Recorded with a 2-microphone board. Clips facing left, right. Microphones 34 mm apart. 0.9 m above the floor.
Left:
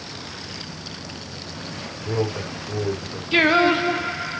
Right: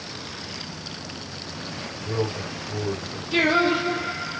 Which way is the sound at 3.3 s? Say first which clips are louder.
Left 3 dB; 35° left (ahead or behind).